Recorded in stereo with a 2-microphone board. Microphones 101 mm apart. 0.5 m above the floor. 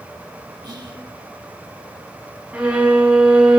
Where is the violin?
15° right (ahead or behind), 3 m.